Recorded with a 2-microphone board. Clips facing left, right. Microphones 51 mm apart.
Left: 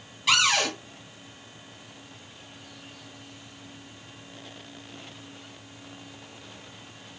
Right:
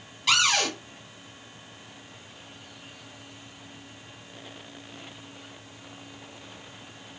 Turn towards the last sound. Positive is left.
turn(degrees=5)  # may be behind; listen again after turning